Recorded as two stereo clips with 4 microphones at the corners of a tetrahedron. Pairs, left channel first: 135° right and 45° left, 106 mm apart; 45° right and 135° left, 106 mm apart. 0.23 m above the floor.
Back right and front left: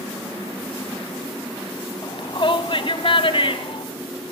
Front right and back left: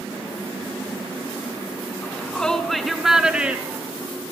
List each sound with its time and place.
2.0 s a shout: 120° right, 1.8 m; by 3.9 s 155° right, 2.5 m